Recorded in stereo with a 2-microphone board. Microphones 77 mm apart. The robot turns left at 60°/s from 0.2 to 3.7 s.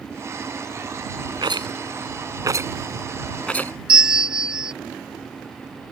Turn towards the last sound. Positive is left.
turn(degrees=-10)  # may be behind; listen again after turning